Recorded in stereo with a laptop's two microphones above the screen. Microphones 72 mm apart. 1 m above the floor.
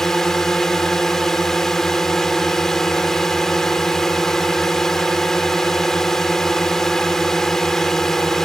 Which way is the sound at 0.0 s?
5° left (ahead or behind).